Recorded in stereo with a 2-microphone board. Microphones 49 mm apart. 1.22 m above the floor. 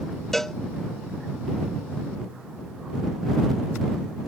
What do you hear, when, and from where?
0.3 s a cowbell: 5° left (ahead or behind)